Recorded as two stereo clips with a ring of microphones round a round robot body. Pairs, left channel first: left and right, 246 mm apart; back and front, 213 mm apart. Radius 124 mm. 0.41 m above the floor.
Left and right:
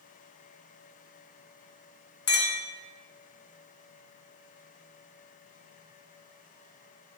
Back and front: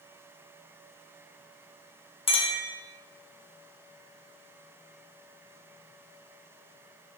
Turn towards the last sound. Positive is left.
turn(degrees=125)